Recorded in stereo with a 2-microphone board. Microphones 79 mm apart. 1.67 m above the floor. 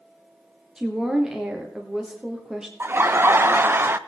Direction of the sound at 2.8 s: 30° right (ahead or behind).